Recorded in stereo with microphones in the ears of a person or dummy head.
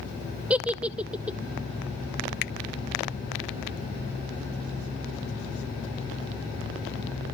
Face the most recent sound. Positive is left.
turn(degrees=50)  # may be behind; listen again after turning